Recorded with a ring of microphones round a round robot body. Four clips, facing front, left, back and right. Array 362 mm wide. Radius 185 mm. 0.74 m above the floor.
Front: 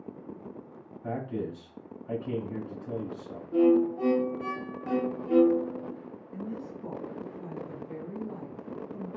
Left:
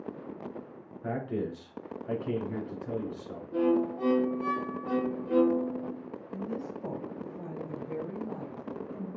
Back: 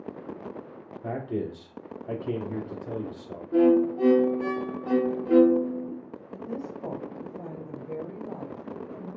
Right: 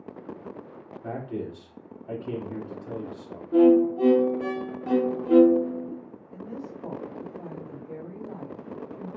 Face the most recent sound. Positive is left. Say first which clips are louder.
# left 1 dB, back 3 dB
turn(degrees=170)